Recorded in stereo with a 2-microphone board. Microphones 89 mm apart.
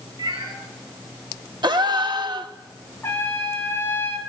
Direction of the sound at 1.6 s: 55° right (ahead or behind).